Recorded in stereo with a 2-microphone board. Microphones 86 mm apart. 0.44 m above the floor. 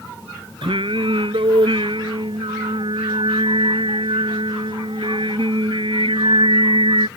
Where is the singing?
80° right.